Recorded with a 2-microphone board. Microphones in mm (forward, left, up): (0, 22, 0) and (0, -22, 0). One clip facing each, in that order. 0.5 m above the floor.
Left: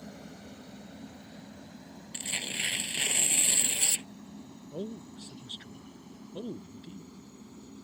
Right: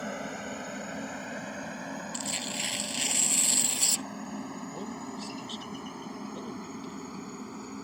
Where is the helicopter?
60° right (ahead or behind); by 7.8 s 75° right (ahead or behind).